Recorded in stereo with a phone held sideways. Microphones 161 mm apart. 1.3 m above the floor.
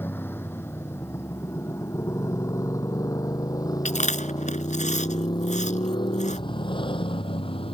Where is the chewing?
45° left (ahead or behind).